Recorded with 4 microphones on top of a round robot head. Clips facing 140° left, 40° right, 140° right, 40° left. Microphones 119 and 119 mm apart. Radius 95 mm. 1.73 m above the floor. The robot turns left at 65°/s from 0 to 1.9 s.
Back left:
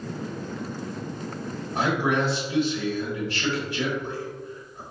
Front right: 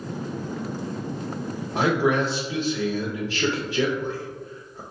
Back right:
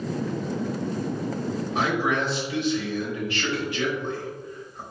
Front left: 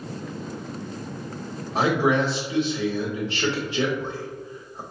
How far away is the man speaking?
About 0.7 m.